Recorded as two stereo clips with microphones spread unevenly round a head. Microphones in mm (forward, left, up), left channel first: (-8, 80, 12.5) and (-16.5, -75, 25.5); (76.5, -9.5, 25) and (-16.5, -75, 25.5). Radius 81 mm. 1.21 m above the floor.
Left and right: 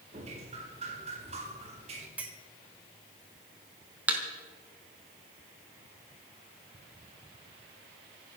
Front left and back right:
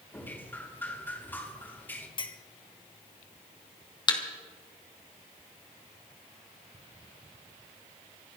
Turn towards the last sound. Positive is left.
turn(degrees=-15)